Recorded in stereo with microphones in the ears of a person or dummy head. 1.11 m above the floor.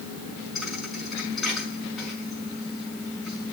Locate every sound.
0.6 s a thud: 5° right (ahead or behind), 5 m